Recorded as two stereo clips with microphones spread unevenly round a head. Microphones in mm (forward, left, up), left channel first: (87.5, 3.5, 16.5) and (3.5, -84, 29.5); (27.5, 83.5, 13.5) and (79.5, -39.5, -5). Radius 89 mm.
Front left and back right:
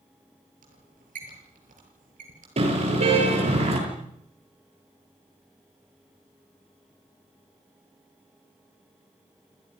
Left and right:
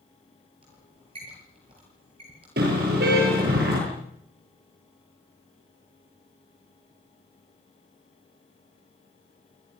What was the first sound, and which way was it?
A squeak, 130° right.